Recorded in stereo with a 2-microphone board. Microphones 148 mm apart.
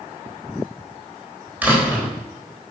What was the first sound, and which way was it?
A door slam, 10° right (ahead or behind).